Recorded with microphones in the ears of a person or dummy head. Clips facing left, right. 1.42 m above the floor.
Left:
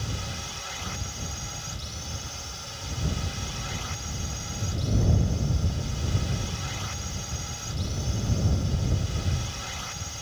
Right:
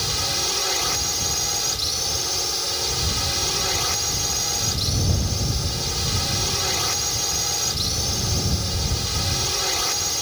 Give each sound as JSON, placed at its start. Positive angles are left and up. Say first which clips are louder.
{"t": 0.0, "sound": "a drone", "louder": "right 7 dB", "side_deg": -75}